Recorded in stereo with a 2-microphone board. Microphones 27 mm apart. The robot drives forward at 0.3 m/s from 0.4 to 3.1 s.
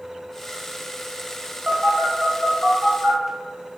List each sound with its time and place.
1.7 s a phone buzzing: 65° right (ahead or behind), 0.5 m; by 3.2 s 50° right (ahead or behind), 0.6 m